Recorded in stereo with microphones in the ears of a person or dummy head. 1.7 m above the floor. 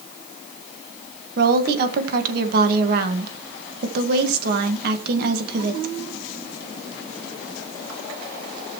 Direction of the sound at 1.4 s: 50° right (ahead or behind).